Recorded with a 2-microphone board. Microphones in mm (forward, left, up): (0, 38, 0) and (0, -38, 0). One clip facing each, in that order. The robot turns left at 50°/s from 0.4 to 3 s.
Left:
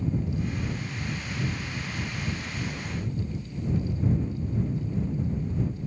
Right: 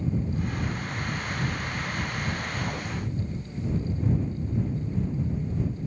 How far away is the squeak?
I don't hear a squeak.